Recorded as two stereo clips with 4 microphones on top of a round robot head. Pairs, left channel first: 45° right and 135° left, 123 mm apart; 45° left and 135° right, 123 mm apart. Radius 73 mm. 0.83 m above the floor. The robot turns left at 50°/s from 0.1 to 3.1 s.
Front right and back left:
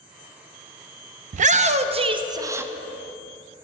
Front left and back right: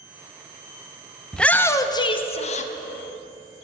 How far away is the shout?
About 0.6 m.